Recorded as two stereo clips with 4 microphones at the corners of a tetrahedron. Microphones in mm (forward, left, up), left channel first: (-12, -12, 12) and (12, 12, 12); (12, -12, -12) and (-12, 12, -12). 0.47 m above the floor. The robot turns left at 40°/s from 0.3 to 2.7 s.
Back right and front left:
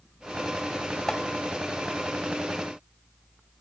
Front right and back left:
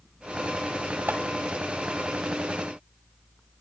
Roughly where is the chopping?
Behind left.